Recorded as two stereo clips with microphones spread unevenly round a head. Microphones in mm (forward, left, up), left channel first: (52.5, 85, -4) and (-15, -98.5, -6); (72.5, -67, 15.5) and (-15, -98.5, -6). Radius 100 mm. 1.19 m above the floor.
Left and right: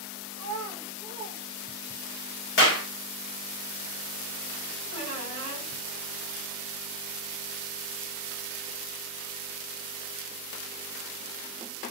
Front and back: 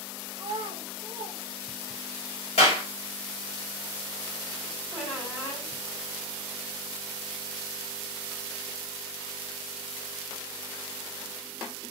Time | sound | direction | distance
0.4 | a child speaking | 120° right | 0.7 m
2.6 | a clap | 40° left | 1.4 m
4.9 | a squeak | 105° left | 3 m